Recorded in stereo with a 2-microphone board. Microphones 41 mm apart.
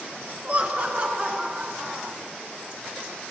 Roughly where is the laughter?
Right.